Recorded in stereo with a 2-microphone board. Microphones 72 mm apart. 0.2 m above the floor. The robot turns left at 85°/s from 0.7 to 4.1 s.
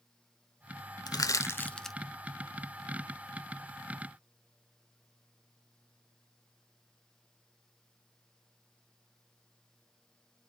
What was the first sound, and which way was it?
Crushing, 65° left (ahead or behind).